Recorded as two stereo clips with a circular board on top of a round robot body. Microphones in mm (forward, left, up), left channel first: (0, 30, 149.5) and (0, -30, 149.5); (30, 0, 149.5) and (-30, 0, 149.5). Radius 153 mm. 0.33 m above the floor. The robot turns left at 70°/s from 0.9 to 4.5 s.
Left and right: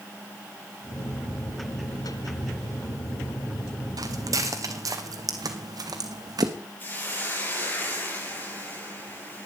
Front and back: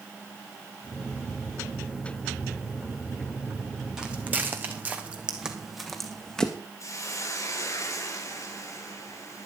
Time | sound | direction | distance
4.0 | footsteps | 100° right | 1.5 m
6.8 | a hiss | 35° left | 4.5 m